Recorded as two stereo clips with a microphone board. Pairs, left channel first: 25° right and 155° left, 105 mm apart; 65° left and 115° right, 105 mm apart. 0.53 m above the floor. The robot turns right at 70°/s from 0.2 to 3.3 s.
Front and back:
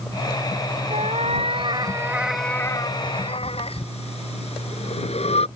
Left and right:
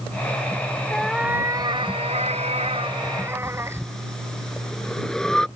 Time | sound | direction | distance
0.9 | a cat meowing | 145° left | ?
3.4 | breathing | 15° right | ?